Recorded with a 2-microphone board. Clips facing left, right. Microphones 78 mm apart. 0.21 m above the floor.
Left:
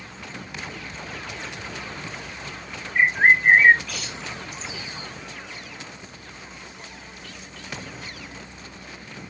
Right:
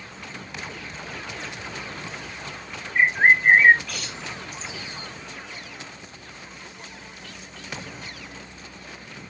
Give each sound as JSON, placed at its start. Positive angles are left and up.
{"t": 3.0, "sound": "a bird", "side_deg": 0, "distance_m": 1.0}